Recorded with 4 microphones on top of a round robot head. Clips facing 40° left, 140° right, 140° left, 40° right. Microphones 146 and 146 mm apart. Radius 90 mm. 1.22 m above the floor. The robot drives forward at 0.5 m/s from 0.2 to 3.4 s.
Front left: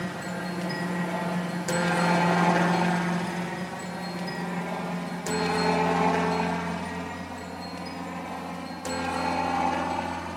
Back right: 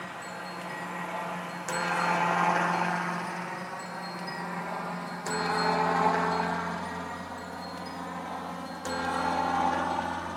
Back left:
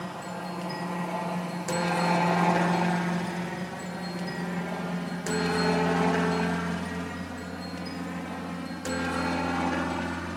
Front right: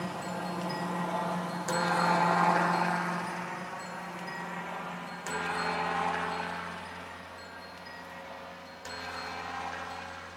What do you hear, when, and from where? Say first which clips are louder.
0.0 s a helicopter: front left 7 dB, even; 45° left; by 10.4 s 120° left